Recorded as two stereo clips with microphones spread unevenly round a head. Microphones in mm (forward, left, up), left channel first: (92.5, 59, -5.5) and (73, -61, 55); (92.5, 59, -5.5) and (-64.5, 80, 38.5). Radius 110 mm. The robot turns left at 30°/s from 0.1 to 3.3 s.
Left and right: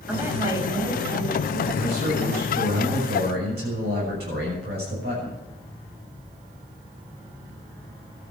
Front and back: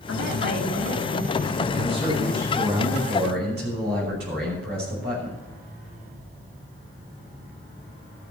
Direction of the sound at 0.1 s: 25° right.